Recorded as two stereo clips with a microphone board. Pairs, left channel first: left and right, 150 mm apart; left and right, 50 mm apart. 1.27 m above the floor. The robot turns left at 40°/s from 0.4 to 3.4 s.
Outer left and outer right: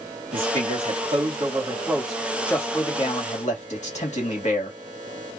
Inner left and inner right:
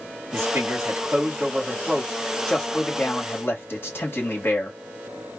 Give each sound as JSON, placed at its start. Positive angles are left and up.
{"t": 0.3, "sound": "a man speaking", "azimuth_deg": -110, "distance_m": 2.5}